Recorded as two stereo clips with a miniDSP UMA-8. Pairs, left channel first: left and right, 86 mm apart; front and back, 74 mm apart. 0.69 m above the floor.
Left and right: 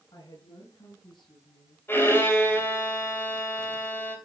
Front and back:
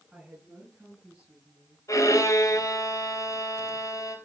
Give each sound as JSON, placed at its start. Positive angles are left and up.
{"t": 0.1, "sound": "a woman speaking", "azimuth_deg": 95, "distance_m": 6.5}
{"t": 1.9, "sound": "a violin", "azimuth_deg": 30, "distance_m": 3.0}